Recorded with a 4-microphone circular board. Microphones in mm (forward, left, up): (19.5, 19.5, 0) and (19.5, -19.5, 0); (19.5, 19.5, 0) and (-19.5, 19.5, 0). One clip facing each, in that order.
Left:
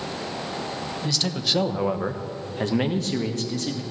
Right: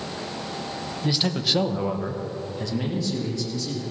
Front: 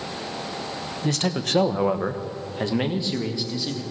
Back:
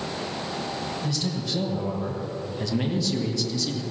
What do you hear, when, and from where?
1.0 s a man speaking: 20° right, 1.1 m; by 3.8 s 70° left, 2 m